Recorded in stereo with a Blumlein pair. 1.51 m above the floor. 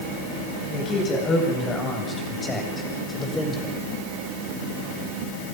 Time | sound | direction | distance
0.7 | a man speaking | 25° left | 9.5 m